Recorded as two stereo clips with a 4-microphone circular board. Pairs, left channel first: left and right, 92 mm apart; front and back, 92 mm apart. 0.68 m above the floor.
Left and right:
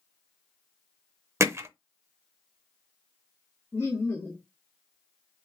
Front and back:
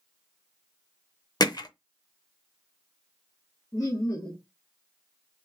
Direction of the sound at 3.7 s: 35° left.